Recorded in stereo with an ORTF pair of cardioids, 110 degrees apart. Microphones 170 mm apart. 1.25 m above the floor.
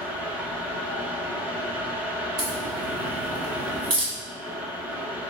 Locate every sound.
0.0 s a fan: 10° right, 1.1 m
2.4 s a crack: 60° right, 1.8 m